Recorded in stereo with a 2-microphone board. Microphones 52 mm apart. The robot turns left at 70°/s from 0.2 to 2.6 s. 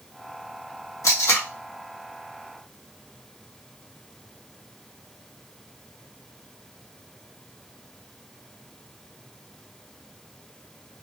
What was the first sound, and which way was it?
Tape being pulled, 80° left.